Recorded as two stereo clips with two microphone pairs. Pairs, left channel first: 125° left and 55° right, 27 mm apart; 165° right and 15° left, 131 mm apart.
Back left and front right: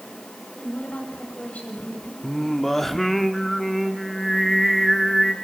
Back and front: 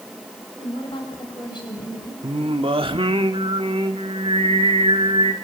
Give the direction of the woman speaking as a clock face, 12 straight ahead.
7 o'clock.